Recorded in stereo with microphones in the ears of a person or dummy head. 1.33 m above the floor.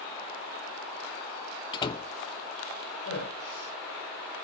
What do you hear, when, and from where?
1.7 s a door slam: 25° left (ahead or behind), 0.9 m
3.0 s a man speaking: 85° left, 7 m